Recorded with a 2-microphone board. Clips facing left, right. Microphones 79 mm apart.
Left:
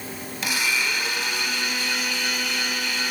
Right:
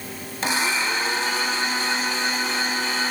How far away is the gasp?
I don't hear a gasp.